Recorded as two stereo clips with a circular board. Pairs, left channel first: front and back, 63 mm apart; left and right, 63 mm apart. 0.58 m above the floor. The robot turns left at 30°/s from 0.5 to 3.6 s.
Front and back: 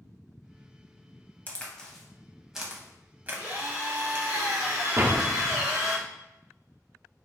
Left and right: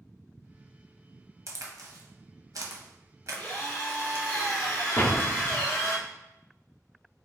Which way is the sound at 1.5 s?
65° right.